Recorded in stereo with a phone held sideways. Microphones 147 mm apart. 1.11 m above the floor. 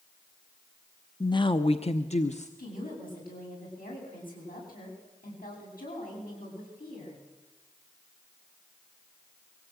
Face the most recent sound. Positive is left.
turn(degrees=85)